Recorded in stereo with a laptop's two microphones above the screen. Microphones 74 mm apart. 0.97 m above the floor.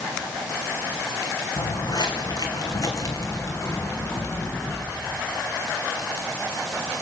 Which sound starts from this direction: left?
Footsteps, at 1.6 s.